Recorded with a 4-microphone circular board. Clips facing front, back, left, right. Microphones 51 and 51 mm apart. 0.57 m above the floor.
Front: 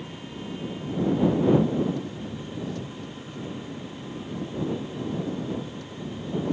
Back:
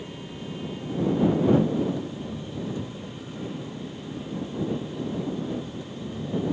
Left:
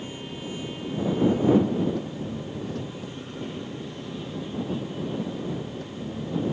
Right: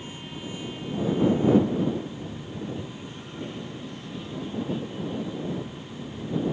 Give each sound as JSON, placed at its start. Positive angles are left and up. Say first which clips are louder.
{"t": 0.0, "sound": "an engine running", "louder": "even, left 2 dB", "azimuth_deg": 105}